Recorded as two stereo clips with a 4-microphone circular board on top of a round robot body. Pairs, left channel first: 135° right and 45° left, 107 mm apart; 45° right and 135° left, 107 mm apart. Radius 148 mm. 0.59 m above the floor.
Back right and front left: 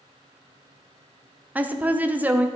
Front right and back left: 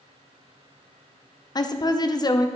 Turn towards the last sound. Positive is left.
turn(degrees=-20)